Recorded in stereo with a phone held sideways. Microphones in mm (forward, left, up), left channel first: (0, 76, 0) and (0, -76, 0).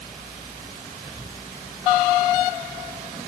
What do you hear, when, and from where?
Only background noise.